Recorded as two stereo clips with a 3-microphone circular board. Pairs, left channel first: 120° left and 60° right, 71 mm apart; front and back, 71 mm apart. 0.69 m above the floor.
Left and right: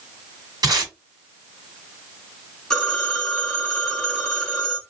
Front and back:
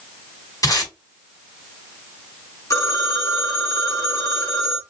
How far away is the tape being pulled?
About 1.7 m.